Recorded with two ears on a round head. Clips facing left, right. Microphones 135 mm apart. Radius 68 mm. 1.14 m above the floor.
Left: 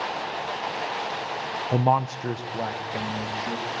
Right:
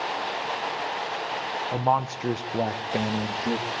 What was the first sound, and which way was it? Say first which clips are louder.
A man speaking: left 2 dB; 30° left (ahead or behind).